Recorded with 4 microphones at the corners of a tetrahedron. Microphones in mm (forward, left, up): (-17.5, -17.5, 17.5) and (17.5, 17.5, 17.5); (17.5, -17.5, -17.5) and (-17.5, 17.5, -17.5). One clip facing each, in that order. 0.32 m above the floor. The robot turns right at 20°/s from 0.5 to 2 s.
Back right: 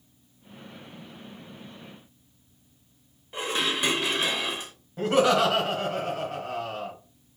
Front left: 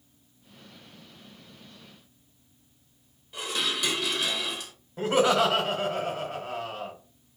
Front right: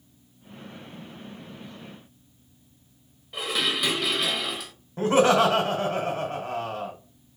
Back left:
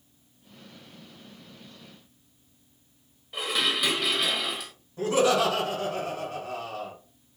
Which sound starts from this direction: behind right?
Dishes clattering, at 3.3 s.